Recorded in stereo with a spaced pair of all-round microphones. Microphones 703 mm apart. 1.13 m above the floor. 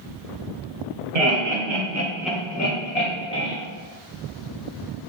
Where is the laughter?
55° right (ahead or behind), 1.2 m; by 3.5 s 55° left (ahead or behind), 1.4 m.